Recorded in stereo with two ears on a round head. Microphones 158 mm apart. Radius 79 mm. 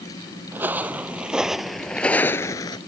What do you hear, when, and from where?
0.5 s footsteps: 10° right (ahead or behind); by 2.8 s 25° left (ahead or behind)